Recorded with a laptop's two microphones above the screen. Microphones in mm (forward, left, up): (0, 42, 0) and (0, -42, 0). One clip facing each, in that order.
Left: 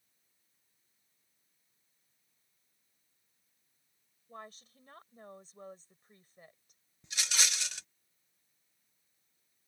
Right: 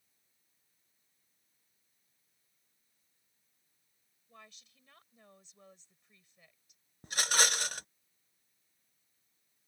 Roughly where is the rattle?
Right.